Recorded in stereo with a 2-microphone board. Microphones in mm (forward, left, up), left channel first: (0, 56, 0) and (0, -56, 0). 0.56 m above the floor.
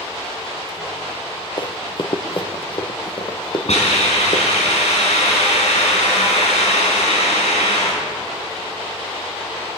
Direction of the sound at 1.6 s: 45° left (ahead or behind).